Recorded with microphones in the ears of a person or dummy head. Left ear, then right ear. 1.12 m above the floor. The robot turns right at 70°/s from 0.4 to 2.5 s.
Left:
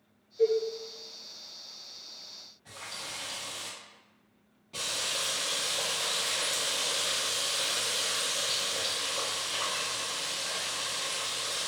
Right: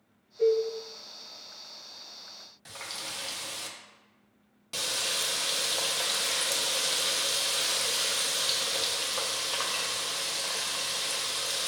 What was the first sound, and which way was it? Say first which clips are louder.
A cowbell: right 1 dB; 20° left (ahead or behind).